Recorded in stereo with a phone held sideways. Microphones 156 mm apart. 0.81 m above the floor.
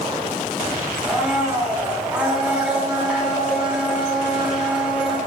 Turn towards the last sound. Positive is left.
turn(degrees=-5)  # may be behind; listen again after turning